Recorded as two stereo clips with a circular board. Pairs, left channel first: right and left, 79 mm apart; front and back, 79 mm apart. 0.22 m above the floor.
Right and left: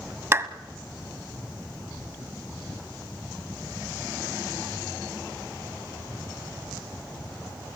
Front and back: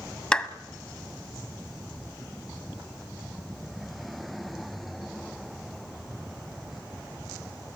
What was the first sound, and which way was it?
A clap, 70° left.